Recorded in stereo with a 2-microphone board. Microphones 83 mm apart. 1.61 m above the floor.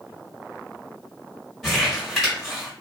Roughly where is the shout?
I don't hear a shout.